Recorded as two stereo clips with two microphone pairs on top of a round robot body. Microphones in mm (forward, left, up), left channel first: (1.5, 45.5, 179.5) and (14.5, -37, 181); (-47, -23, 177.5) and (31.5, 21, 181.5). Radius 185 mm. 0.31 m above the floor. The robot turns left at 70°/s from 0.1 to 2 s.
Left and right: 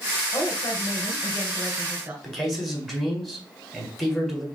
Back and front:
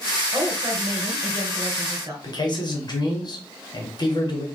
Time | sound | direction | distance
0.3 | a woman speaking | 100° left | 2 m
2.2 | a man speaking | 175° right | 1.5 m